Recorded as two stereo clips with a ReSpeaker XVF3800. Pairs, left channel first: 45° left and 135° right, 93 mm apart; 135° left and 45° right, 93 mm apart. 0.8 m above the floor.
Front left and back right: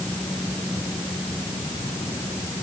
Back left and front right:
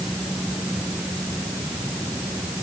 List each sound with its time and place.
Only background noise.